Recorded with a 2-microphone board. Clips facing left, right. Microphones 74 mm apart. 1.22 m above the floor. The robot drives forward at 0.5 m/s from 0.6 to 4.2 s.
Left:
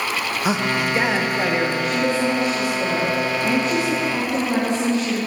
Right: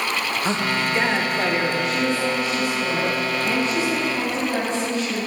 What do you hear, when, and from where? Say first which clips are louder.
0.5 s a man speaking: left 3 dB; 10° left (ahead or behind), 0.7 m; by 1.7 s 5° left (ahead or behind), 1.1 m
1.8 s a woman speaking: left 2 dB; 60° left (ahead or behind), 2.5 m; by 5.2 s 85° left, 2.5 m